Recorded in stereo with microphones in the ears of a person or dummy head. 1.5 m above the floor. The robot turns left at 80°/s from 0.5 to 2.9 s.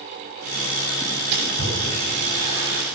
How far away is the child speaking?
I don't hear a child speaking.